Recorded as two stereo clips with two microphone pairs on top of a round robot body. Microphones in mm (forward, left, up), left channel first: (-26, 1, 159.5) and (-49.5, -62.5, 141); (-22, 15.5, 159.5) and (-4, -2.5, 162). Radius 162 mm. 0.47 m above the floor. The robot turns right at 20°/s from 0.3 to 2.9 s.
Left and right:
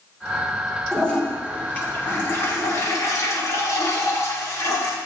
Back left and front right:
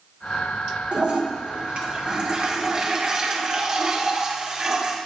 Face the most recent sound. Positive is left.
turn(degrees=20)